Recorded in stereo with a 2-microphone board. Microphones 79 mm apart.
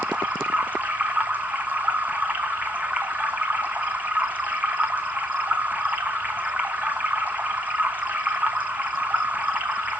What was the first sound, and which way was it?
Running water, 20° right (ahead or behind).